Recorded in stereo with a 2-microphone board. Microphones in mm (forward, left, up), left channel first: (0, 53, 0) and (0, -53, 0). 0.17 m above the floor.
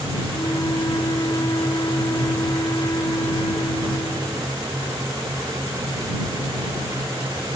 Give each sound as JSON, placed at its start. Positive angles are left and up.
{"t": 0.3, "sound": "a flute", "side_deg": 40}